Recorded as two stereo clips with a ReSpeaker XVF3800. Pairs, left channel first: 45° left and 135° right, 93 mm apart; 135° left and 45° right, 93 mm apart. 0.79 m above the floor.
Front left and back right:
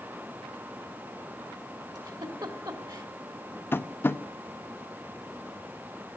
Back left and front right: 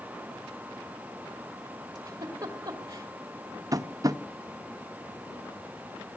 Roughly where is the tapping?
Ahead.